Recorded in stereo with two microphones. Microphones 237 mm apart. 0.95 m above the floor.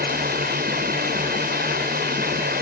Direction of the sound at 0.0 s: 40° right (ahead or behind).